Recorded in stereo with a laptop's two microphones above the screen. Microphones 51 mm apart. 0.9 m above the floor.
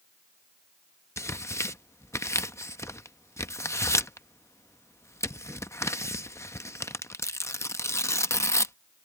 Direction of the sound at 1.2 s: 65° left (ahead or behind).